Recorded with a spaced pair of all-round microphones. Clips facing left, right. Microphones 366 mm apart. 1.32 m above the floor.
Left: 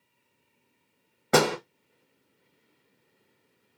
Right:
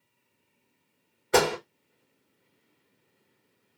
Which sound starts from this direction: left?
A door slam, at 1.3 s.